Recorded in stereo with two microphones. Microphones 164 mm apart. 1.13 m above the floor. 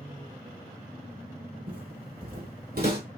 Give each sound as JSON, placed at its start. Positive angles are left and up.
{"t": 1.7, "sound": "footsteps", "side_deg": -55, "distance_m": 1.9}